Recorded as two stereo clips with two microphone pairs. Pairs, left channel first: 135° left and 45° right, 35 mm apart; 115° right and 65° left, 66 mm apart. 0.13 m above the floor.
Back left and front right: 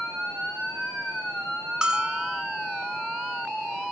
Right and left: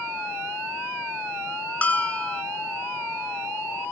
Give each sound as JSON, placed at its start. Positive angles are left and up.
{"t": 1.8, "sound": "a bell", "azimuth_deg": -75, "distance_m": 1.6}